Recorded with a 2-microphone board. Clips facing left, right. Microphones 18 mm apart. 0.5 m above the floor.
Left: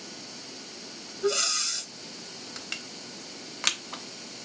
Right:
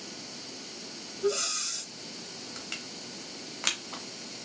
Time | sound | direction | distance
1.2 | breathing | 40° left (ahead or behind) | 0.6 m
2.6 | crushing | 15° left (ahead or behind) | 0.7 m